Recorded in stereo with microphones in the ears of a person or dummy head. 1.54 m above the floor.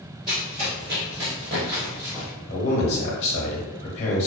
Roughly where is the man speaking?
Left.